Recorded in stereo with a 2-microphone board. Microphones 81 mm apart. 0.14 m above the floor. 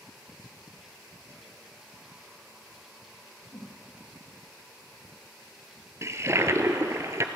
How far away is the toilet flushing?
About 1.1 m.